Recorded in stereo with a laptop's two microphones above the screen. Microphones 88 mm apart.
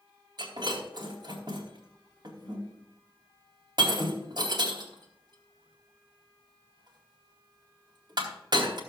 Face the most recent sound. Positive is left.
turn(degrees=-55)  # may be behind; listen again after turning